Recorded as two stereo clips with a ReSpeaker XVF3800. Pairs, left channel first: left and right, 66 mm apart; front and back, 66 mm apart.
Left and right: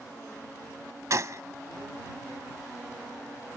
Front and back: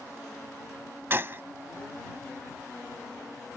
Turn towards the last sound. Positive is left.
turn(degrees=-125)